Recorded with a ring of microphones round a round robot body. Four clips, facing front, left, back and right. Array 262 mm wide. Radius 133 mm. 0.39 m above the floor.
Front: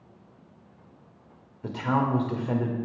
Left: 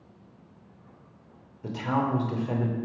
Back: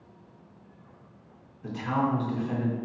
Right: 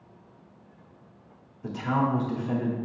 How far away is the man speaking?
About 1.2 m.